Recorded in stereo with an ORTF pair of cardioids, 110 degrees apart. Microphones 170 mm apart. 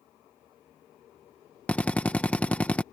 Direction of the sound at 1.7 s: 10° left.